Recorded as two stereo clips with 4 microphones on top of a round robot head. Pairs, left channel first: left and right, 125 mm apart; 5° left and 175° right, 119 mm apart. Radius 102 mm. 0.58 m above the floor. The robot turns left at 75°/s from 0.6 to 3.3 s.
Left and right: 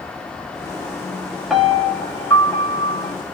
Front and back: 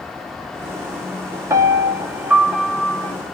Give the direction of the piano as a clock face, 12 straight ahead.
6 o'clock.